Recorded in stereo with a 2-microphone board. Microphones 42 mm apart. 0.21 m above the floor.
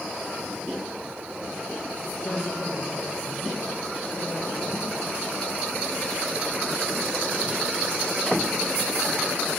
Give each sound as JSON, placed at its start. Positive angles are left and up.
{"t": 2.2, "sound": "a woman speaking", "side_deg": 50, "distance_m": 5.5}